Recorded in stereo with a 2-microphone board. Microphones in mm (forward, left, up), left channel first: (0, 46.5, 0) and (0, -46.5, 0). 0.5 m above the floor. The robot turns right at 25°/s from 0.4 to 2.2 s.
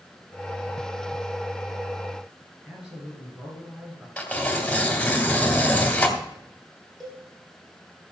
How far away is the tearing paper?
About 2 m.